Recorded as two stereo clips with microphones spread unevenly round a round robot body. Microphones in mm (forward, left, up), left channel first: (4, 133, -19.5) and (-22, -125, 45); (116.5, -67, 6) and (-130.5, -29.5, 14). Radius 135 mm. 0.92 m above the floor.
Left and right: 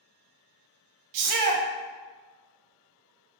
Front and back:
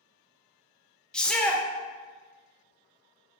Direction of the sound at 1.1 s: 95° right.